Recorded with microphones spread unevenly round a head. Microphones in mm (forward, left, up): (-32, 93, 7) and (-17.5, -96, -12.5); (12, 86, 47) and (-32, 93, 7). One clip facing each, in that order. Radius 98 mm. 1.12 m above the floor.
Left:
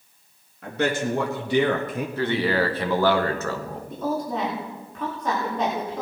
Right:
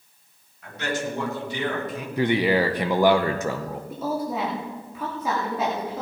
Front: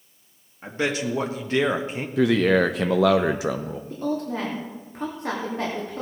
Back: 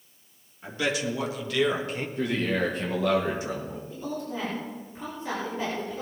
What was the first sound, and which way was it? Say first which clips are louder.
A man speaking: left 5 dB, front 3 dB; 45° left.